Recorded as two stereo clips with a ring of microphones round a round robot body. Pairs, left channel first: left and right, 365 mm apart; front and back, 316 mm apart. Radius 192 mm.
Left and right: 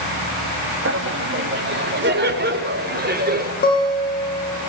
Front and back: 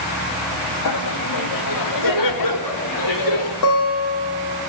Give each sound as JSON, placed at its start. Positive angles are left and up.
{"t": 0.8, "sound": "laughter", "azimuth_deg": -35, "distance_m": 1.8}
{"t": 3.6, "sound": "a guitar", "azimuth_deg": 25, "distance_m": 8.5}